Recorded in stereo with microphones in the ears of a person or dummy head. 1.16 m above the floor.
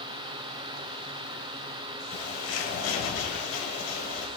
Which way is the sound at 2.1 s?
65° left (ahead or behind).